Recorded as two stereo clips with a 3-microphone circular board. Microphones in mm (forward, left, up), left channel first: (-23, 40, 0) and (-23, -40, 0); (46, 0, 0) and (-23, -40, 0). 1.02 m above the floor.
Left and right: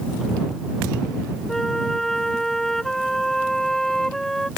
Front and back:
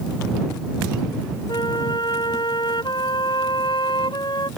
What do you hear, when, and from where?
1.5 s a flute: 5° left